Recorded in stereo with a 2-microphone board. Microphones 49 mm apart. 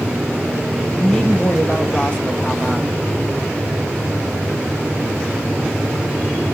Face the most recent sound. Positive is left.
turn(degrees=20)  # may be behind; listen again after turning